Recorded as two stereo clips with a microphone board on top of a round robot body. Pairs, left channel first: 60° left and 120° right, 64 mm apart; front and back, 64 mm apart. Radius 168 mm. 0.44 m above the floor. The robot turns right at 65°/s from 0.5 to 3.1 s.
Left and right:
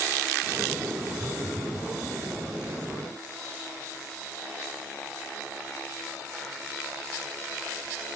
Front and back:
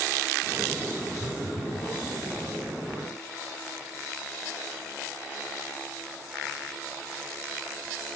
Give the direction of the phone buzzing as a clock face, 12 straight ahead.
1 o'clock.